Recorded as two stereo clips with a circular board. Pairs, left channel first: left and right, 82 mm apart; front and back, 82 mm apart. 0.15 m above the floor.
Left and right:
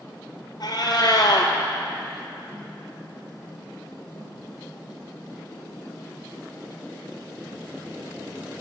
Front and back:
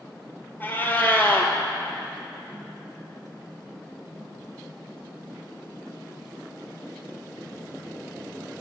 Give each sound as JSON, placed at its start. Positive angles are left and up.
{"t": 0.6, "sound": "a cat meowing", "azimuth_deg": 65, "distance_m": 0.9}